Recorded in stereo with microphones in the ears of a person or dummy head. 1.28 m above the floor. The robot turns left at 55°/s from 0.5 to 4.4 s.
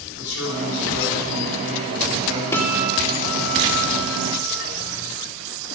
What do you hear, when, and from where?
0.1 s a man speaking: 60° left, 5.5 m; by 2.4 s 45° right, 5.5 m
2.5 s a guitar: 15° left, 2.5 m; by 4.6 s 90° right, 2.5 m